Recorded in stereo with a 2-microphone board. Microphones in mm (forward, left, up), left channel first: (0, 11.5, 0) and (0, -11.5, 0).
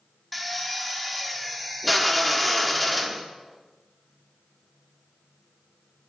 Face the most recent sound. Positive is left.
turn(degrees=0)  # may be behind; listen again after turning